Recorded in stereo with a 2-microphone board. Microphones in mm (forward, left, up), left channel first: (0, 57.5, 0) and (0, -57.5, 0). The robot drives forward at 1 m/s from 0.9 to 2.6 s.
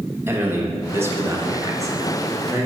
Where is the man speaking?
20° right (ahead or behind), 1.0 m; by 2.7 s 15° right (ahead or behind), 1.2 m.